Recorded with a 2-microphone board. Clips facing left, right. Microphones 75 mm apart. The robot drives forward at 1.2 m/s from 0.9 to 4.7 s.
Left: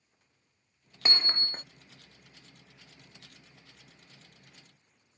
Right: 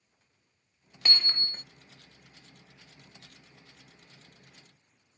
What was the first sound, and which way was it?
Hammering, 25° left (ahead or behind).